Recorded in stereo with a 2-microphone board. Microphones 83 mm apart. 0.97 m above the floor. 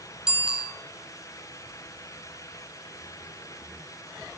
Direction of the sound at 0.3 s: 10° right (ahead or behind).